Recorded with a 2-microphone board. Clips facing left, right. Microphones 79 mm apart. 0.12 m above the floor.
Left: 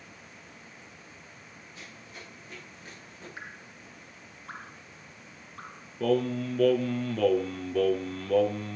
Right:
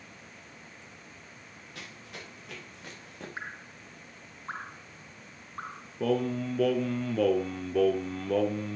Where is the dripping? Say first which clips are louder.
Right 3 dB; 30° right (ahead or behind), 0.8 m.